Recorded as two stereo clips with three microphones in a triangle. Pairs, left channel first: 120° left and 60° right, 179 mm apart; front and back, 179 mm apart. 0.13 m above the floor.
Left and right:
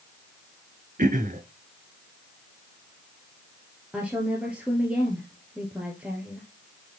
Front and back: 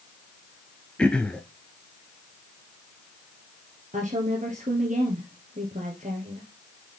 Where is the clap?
I don't hear a clap.